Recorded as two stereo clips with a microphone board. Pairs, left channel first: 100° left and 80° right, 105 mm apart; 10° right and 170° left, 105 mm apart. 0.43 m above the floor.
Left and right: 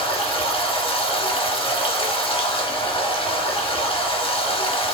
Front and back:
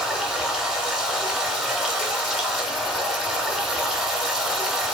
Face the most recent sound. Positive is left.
turn(degrees=85)